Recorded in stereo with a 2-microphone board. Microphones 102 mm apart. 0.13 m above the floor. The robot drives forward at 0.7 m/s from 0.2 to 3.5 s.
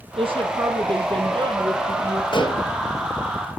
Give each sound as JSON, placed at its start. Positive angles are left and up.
{"t": 0.2, "sound": "a woman speaking", "side_deg": -65, "distance_m": 3.0}
{"t": 2.3, "sound": "dishes clattering", "side_deg": 55, "distance_m": 2.0}